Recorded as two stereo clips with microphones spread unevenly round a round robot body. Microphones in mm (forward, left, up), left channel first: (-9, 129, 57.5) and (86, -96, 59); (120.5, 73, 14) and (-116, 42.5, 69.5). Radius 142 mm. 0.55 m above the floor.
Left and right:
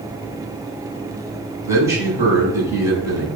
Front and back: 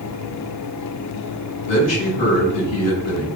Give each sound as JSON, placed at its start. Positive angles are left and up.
{"t": 1.6, "sound": "a man speaking", "azimuth_deg": 10, "distance_m": 3.5}